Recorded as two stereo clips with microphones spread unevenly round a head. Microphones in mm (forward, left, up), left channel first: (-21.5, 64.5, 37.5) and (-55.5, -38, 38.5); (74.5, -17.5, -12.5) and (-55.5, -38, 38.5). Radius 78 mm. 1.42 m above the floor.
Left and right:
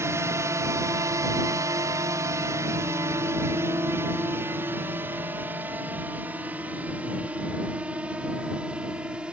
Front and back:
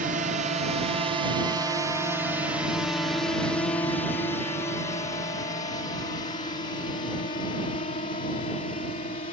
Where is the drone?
155° right; by 9.3 s 25° right.